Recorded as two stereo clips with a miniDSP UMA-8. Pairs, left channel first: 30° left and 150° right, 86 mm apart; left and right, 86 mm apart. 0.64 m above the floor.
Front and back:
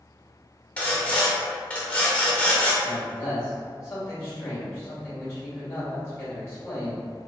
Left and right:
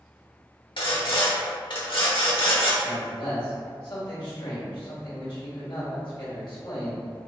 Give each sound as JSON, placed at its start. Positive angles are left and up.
{"t": 0.8, "sound": "sawing", "azimuth_deg": 105, "distance_m": 0.9}
{"t": 2.8, "sound": "a man speaking", "azimuth_deg": 85, "distance_m": 1.9}